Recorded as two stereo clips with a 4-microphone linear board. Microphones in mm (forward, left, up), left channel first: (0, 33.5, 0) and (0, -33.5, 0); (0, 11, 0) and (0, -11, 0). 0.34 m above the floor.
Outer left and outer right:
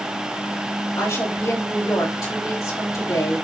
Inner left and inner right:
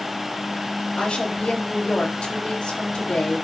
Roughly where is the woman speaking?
Left.